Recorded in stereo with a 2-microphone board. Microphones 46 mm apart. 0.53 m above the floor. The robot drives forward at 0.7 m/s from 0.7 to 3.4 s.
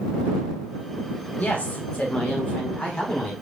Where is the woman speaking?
35° left (ahead or behind), 3.5 m; by 3.3 s 25° left (ahead or behind), 5 m.